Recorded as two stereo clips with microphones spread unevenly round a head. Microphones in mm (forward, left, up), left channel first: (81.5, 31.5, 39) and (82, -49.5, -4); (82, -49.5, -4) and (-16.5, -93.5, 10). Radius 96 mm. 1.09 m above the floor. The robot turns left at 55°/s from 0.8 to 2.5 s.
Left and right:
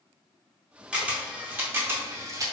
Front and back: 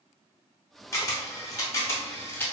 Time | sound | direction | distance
0.9 | a camera shutter | 50° left | 0.8 m